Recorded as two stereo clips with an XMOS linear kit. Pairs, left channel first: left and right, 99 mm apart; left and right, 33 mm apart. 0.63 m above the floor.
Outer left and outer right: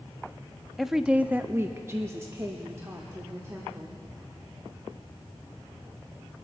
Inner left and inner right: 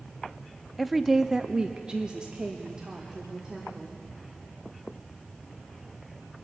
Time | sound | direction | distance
0.8 | a woman speaking | centre (ahead or behind) | 0.5 m